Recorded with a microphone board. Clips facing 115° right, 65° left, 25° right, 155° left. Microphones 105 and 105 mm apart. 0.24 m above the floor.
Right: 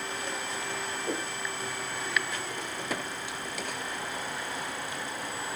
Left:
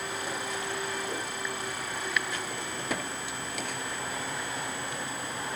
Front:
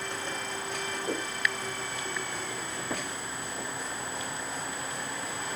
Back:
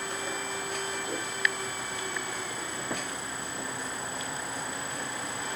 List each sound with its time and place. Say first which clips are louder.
1.1 s a whoosh: right 2 dB, front 2 dB; 80° right, 8.5 m